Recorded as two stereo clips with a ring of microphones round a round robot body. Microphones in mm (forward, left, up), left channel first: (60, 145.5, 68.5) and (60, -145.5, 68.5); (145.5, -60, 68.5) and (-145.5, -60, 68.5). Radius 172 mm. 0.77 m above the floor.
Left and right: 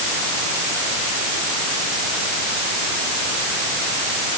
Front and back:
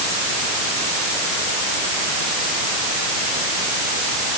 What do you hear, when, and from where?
Only background noise.